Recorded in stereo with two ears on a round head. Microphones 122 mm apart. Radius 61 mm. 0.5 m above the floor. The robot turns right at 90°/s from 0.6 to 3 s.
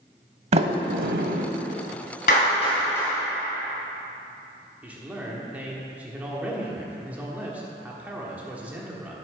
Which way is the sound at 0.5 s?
50° right (ahead or behind).